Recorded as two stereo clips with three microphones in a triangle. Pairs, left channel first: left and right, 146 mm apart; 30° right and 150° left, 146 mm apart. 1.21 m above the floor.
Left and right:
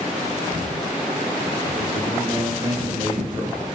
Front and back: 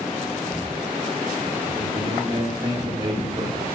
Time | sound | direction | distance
1.8 | a man speaking | 150° right | 2 m